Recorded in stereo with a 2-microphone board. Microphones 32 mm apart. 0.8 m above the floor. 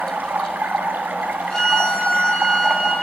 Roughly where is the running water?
Right.